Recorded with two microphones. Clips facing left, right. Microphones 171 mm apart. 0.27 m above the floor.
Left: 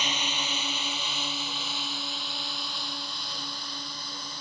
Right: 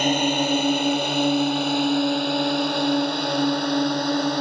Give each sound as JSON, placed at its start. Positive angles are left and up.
{"t": 0.0, "sound": "a drone", "side_deg": -50}